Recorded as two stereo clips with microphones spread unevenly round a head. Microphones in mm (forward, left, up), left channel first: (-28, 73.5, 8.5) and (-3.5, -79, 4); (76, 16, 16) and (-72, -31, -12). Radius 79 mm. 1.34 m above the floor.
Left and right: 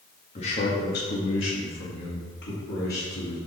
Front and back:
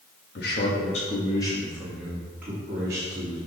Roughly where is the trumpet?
No trumpet in this recording.